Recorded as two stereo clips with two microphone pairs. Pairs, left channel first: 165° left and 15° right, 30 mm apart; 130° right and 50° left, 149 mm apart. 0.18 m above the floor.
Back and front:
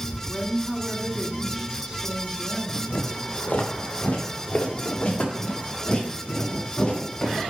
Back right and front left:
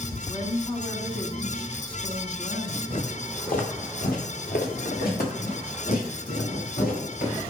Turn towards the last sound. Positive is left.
turn(degrees=-120)